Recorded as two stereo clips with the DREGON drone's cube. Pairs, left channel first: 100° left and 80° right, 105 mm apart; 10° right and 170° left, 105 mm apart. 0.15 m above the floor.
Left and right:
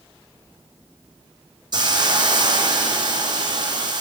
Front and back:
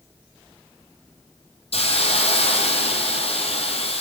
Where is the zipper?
I don't hear a zipper.